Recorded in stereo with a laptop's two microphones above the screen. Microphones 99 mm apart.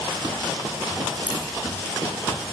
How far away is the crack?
About 3.5 m.